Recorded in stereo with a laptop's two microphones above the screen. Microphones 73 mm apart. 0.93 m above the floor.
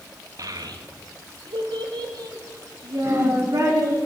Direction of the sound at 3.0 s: 35° right (ahead or behind).